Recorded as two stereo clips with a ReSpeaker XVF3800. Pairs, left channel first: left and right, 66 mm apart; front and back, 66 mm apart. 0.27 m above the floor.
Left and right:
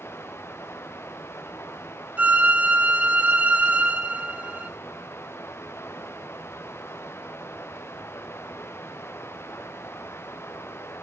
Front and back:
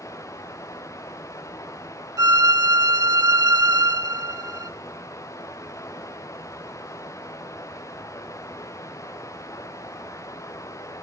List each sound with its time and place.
0.0 s running water: 35° left, 4 m
2.2 s a violin: 155° right, 1.0 m